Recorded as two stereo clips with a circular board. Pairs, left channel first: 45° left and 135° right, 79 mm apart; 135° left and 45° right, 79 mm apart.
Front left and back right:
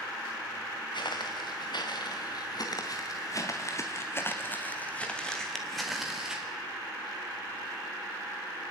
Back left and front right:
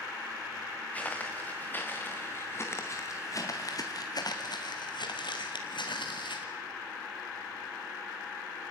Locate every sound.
0.9 s footsteps: 65° left, 2.5 m; by 6.5 s 145° left, 2.0 m